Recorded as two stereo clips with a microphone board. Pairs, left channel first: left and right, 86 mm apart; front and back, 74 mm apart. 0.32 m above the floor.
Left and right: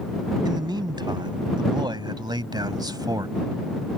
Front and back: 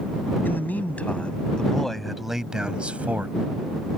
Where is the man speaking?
65° right; by 3.3 s 120° right.